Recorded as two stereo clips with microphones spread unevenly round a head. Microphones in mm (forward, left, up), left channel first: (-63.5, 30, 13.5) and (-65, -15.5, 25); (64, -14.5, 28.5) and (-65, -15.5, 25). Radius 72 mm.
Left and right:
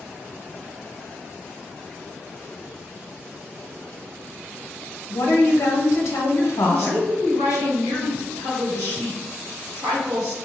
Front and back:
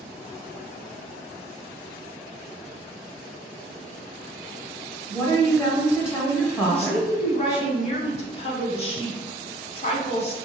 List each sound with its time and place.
5.1 s a woman speaking: 70° left, 0.8 m
6.7 s a woman speaking: 40° right, 1.0 m